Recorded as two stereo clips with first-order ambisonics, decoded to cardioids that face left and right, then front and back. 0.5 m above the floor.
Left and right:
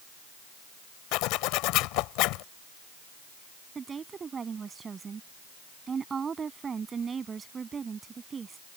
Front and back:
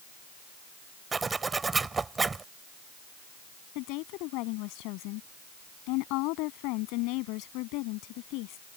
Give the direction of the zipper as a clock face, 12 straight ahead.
8 o'clock.